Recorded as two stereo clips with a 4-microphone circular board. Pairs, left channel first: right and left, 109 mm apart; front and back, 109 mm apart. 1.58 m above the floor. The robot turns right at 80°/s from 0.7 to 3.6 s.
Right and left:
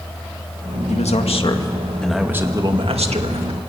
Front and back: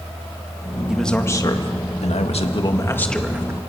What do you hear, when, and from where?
0.9 s a man speaking: 95° right, 1.9 m; by 3.6 s 120° left, 1.9 m